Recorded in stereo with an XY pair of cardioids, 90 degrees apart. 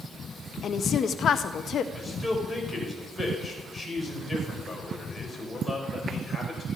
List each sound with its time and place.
0.6 s a woman speaking: 65° left, 1.5 m
1.9 s a man speaking: 30° left, 6.5 m